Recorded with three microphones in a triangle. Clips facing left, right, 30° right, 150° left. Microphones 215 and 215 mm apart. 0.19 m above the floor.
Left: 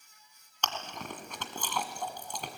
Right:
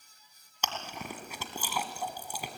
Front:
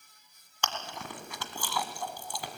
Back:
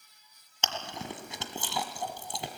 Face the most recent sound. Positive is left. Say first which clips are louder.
# even, back 1 dB
turn(degrees=-165)